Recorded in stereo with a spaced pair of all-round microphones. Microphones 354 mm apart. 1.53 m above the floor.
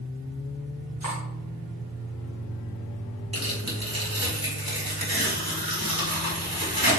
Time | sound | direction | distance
1.0 | cutlery clinking | 55° right (ahead or behind) | 2.5 m
3.3 | tearing paper | 90° right | 3.5 m